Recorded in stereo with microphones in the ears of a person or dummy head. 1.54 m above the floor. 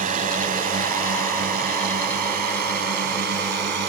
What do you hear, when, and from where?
0.0 s a drone: 40° right (ahead or behind); by 3.9 s 50° right (ahead or behind)